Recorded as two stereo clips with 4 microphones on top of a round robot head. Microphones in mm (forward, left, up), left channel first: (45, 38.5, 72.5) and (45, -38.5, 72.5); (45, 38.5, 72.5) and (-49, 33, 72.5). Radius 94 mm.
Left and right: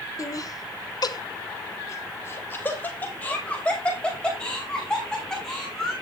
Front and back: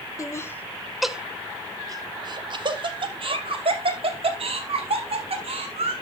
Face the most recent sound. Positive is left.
turn(degrees=175)